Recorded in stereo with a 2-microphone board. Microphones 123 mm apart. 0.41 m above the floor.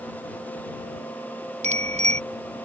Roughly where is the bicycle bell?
Right.